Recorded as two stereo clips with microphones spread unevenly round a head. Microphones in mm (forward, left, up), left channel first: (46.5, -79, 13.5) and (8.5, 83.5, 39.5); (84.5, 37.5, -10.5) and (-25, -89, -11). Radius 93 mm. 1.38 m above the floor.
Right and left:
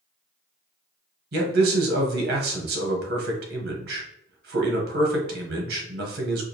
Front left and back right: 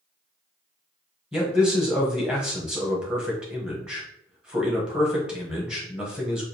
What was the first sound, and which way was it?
A man speaking, 145° left.